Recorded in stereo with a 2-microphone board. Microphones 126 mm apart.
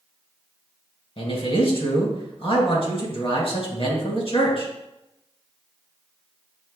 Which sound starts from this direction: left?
A man speaking, at 1.2 s.